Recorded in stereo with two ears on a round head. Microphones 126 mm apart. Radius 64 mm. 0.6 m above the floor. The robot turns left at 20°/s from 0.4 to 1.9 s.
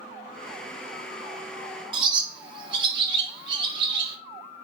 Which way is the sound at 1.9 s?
30° right (ahead or behind).